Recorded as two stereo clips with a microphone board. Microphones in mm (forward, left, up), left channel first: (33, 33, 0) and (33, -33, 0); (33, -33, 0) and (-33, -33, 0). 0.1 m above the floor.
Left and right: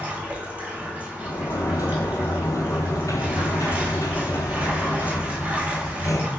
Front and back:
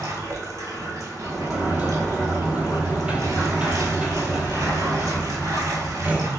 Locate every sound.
0.0 s running water: 150° right, 1.0 m
1.2 s a sliding door: 110° left, 0.7 m